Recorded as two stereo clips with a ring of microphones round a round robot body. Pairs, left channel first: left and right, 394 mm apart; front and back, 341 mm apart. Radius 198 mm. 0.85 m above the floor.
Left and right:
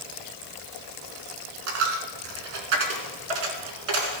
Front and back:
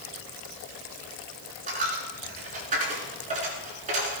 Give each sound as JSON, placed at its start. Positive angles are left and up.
{"t": 1.7, "sound": "a dropped coin", "azimuth_deg": -110, "distance_m": 3.0}